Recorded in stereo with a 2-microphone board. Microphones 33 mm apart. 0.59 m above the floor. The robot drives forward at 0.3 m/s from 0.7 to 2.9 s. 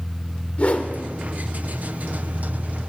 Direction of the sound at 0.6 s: 45° left (ahead or behind).